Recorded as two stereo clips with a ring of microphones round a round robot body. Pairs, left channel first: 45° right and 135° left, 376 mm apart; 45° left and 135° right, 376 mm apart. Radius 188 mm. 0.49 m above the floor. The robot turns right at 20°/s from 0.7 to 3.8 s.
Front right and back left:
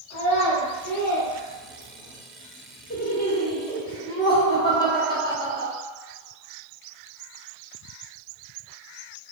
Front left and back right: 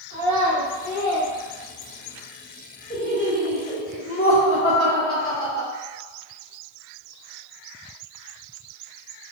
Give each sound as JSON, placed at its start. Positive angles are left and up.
{"t": 0.1, "sound": "a child speaking", "azimuth_deg": -5, "distance_m": 1.2}
{"t": 2.9, "sound": "laughter", "azimuth_deg": 10, "distance_m": 0.8}